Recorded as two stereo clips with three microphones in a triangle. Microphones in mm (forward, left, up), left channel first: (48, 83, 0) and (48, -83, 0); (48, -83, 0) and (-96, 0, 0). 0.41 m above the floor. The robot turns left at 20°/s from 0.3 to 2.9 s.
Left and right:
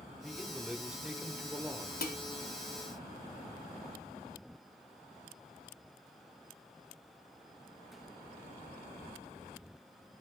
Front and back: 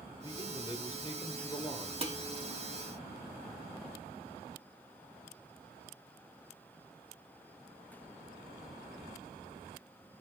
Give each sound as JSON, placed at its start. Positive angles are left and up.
{"t": 0.2, "sound": "a man speaking", "azimuth_deg": 0, "distance_m": 1.1}
{"t": 2.0, "sound": "dishes clattering", "azimuth_deg": 100, "distance_m": 1.6}